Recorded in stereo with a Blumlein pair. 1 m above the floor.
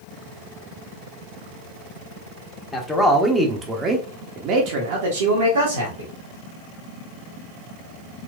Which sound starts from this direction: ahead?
A man speaking, at 2.7 s.